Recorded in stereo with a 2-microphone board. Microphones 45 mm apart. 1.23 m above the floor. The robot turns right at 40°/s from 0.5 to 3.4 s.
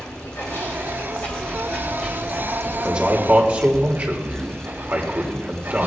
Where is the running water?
120° left, 3 m; by 5.9 s 125° right, 3 m.